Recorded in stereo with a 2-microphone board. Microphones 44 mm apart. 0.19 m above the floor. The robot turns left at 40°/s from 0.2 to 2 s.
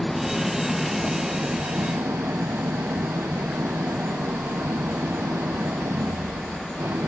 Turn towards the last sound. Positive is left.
turn(degrees=-70)